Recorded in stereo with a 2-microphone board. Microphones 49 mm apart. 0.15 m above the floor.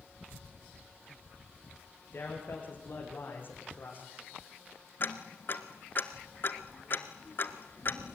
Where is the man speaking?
40° left (ahead or behind), 9 m; by 4.1 s 45° left (ahead or behind), 7.5 m.